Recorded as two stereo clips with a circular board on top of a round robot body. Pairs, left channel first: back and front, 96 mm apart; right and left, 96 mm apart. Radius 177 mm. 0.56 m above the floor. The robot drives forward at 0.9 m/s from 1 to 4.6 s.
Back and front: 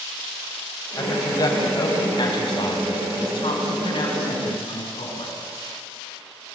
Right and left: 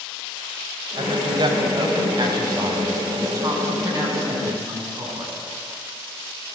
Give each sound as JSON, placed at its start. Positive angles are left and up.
{"t": 1.0, "sound": "a woman speaking", "azimuth_deg": 125, "distance_m": 3.5}